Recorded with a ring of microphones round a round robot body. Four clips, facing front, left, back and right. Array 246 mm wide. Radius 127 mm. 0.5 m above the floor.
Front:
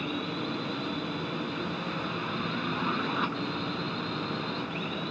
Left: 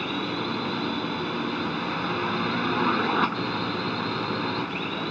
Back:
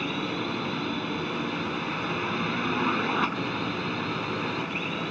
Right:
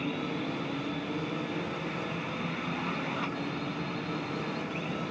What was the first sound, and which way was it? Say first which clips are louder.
A drone: left 4 dB, back 3 dB; 110° left.